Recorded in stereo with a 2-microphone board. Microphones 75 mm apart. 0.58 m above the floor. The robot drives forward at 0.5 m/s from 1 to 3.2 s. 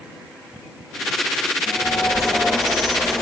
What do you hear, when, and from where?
1.7 s a bird: 5° right (ahead or behind), 0.6 m; by 3.2 s centre (ahead or behind), 1.3 m